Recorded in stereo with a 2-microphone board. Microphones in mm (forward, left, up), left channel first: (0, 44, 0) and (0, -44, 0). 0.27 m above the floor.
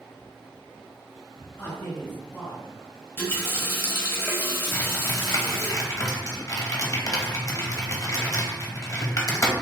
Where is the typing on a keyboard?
40° left (ahead or behind), 0.7 m.